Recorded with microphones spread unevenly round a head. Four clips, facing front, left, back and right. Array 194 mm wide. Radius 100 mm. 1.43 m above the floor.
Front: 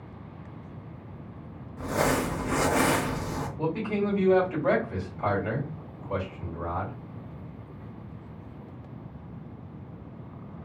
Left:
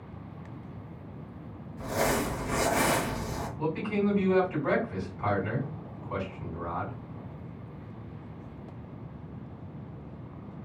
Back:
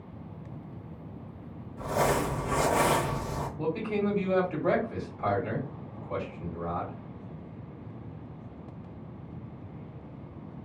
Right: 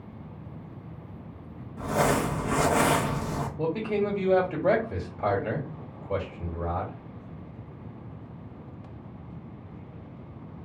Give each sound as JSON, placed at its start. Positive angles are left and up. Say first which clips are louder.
{"t": 1.8, "sound": "crumpling", "louder": "right 4 dB, front 1 dB", "azimuth_deg": -60, "distance_m": 0.9}
{"t": 3.6, "sound": "a man speaking", "louder": "right 2 dB, front 1 dB", "azimuth_deg": -75, "distance_m": 1.4}